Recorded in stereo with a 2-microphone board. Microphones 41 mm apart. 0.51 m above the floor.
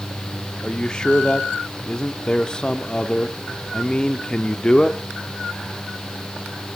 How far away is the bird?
I don't hear a bird.